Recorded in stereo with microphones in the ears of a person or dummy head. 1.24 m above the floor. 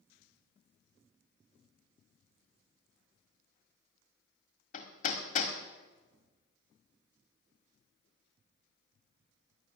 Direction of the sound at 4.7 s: 50° left (ahead or behind).